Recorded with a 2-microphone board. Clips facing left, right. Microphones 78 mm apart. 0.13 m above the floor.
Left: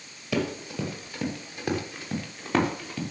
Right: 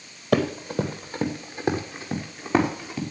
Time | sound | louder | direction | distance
0.3 | running footsteps | right 6 dB | 50° right (ahead or behind) | 2 m